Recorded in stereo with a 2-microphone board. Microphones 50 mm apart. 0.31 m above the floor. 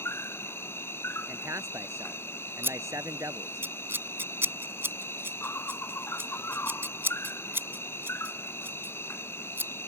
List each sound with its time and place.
0.0 s an insect: 55° left (ahead or behind)
1.3 s a man speaking: 80° right
2.6 s scissors: 50° right (ahead or behind)